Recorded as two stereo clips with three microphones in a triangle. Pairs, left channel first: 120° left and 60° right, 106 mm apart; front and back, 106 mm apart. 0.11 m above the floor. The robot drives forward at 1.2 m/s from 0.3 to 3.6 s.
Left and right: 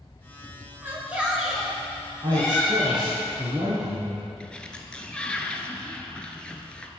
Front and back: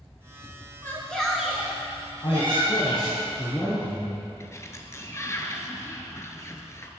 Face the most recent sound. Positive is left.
turn(degrees=45)